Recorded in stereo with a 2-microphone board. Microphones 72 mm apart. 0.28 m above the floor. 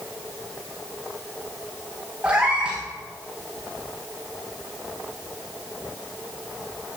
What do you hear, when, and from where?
2.2 s a cat meowing: 15° right (ahead or behind), 7.5 m